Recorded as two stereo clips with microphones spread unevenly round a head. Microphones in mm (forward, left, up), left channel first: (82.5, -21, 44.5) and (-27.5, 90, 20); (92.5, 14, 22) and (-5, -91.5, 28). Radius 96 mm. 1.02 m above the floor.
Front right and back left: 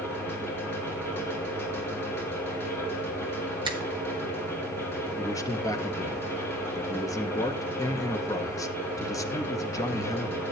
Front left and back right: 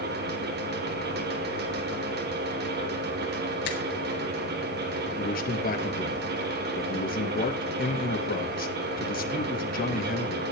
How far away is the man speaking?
About 1.7 m.